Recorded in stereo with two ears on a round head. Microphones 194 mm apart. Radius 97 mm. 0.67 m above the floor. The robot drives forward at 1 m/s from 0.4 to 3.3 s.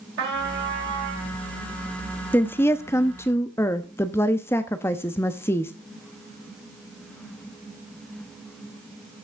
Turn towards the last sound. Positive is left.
turn(degrees=10)  # may be behind; listen again after turning